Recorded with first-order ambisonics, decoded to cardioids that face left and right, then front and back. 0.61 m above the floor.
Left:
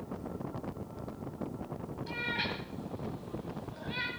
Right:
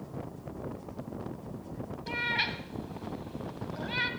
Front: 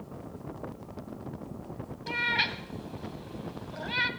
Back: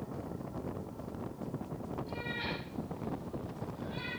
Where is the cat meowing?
20° right, 1.4 m.